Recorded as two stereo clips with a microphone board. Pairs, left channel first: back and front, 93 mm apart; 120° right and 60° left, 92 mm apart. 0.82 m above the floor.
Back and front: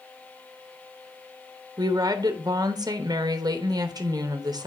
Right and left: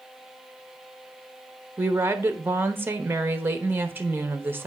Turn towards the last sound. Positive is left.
turn(degrees=0)